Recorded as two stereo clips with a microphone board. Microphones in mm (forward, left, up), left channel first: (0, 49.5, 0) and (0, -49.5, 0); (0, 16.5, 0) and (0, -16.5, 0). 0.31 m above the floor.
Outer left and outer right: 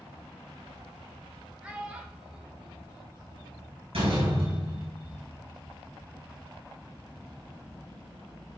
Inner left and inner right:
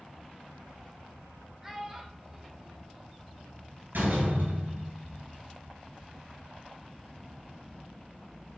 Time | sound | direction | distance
1.6 | a child speaking | 10° right (ahead or behind) | 1.5 m
3.9 | a door slam | 75° right (ahead or behind) | 3.5 m